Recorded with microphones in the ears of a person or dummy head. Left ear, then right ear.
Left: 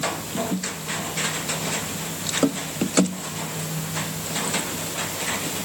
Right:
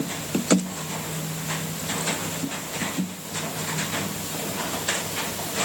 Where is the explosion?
I don't hear an explosion.